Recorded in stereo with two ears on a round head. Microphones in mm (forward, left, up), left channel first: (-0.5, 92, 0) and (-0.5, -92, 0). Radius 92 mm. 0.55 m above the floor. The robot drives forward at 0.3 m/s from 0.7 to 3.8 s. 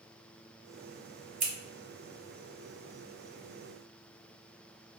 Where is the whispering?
No whispering in this recording.